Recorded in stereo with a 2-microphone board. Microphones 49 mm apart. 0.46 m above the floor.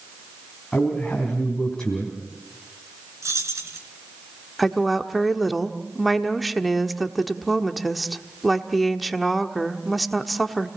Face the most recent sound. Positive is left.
turn(degrees=0)  # may be behind; listen again after turning